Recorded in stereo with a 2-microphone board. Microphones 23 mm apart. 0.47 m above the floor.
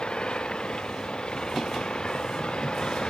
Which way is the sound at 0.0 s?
50° left (ahead or behind).